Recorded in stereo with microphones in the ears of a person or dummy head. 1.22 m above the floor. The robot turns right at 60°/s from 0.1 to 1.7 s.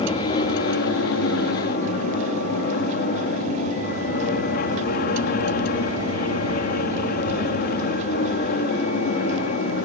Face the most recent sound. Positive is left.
turn(degrees=130)